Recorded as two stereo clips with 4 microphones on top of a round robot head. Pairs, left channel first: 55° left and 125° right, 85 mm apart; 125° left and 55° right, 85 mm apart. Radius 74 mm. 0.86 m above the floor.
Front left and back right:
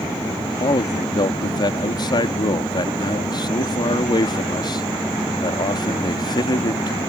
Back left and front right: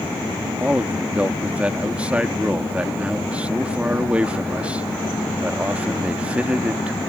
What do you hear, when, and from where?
0.6 s a man speaking: 20° left